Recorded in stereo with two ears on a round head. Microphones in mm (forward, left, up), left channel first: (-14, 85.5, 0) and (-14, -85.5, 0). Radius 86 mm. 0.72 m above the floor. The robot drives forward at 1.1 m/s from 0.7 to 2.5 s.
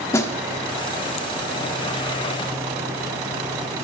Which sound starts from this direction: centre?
A snare drum, at 0.1 s.